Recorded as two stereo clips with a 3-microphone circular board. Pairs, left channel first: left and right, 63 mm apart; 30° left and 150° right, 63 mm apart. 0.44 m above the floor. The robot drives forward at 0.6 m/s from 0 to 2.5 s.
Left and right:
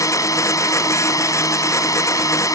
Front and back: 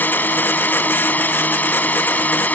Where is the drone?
85° left; by 2.5 s 90° left.